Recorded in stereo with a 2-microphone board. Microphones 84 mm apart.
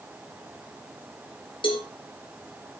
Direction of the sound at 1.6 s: 70° left (ahead or behind).